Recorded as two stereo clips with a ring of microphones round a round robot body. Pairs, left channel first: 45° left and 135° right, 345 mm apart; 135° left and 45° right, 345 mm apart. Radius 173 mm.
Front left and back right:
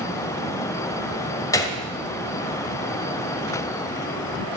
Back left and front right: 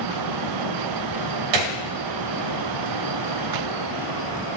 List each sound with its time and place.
1.5 s a gunshot: 35° right, 1.9 m